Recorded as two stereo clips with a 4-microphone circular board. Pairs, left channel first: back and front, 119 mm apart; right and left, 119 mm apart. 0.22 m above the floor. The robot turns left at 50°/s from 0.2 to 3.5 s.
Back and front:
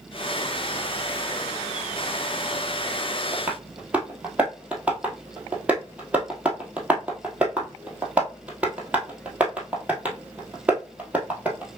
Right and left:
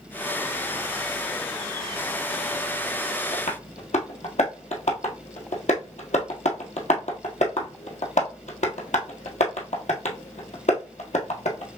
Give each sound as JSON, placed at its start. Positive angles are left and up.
{"t": 3.3, "sound": "tapping", "azimuth_deg": -70, "distance_m": 1.2}